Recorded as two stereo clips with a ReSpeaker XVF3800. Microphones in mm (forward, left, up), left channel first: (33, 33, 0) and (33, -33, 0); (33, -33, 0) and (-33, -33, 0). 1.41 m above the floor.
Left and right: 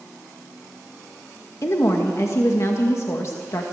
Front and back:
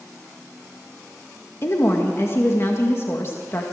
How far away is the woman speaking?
About 1.9 m.